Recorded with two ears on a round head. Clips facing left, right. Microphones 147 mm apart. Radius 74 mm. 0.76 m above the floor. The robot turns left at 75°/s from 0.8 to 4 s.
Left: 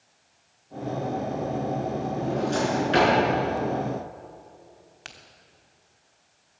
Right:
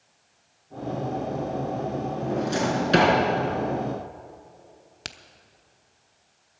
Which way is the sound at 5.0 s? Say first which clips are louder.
Right 5 dB; 45° right (ahead or behind).